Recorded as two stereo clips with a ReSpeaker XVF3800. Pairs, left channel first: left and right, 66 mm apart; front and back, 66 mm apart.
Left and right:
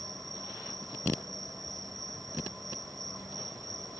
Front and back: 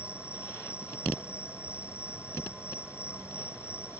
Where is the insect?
110° right.